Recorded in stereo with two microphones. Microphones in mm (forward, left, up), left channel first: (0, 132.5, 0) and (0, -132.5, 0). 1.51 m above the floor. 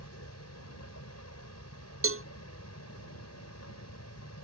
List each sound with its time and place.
0.0 s a vehicle: 70° left (ahead or behind)
2.0 s a cowbell: 55° right (ahead or behind)